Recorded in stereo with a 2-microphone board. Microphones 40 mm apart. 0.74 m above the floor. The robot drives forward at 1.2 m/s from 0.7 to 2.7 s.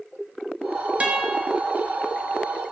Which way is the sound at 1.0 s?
30° right (ahead or behind).